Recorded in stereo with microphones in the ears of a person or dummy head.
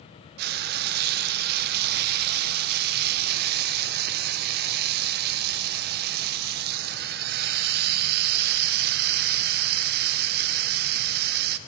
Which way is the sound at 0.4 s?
55° right (ahead or behind).